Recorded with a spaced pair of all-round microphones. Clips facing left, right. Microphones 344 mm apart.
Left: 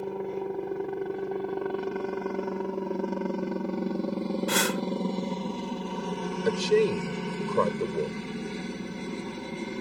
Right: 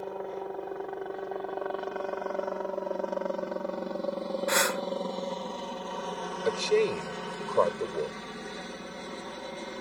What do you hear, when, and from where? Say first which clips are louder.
0.0 s a helicopter: left 4 dB; 40° left (ahead or behind)
4.5 s breathing: left 2 dB; 40° left (ahead or behind)
6.5 s a man speaking: left 2 dB; 25° left (ahead or behind)